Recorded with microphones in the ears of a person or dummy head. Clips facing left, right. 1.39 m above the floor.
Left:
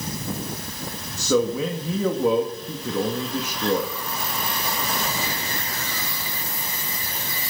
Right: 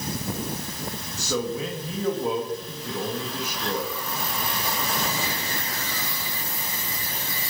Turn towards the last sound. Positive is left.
turn(degrees=65)  # may be behind; listen again after turning